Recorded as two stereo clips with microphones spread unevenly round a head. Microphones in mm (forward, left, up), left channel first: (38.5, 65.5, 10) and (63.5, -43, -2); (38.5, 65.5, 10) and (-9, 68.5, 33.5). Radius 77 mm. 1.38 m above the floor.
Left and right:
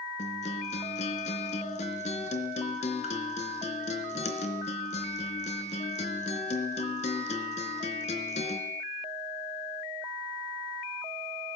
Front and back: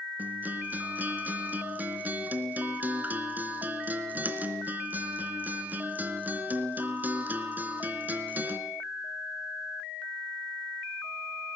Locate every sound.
0.2 s a guitar: 140° left, 3 m